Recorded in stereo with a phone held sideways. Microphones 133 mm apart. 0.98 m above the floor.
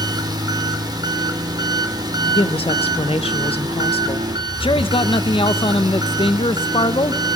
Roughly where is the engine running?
Right.